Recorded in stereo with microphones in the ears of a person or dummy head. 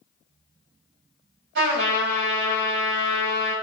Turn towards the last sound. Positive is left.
turn(degrees=-60)  # may be behind; listen again after turning